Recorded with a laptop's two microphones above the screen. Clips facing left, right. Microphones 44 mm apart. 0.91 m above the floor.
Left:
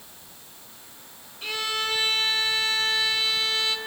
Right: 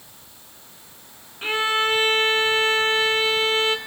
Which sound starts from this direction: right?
A violin, at 1.4 s.